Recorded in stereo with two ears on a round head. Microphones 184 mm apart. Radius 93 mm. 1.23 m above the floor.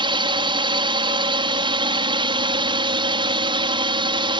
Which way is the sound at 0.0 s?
25° right (ahead or behind).